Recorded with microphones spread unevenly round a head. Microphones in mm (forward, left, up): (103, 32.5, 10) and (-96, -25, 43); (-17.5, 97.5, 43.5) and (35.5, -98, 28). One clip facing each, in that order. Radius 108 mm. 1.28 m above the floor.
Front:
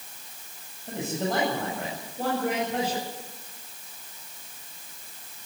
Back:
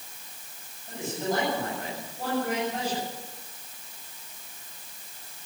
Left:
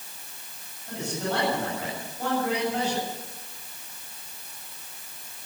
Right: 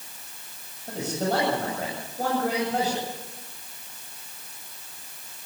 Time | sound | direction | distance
0.9 | a man speaking | 20° right | 9 m